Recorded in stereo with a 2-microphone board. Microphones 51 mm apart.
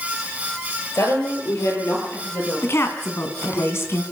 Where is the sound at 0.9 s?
65° left (ahead or behind), 9.5 m; by 3.6 s 50° left (ahead or behind), 11.5 m.